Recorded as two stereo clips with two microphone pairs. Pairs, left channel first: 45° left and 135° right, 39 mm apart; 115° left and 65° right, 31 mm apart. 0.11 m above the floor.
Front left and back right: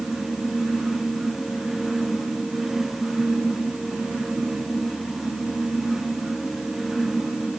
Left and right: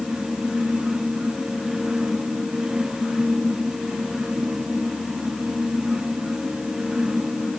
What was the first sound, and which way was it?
Only background noise.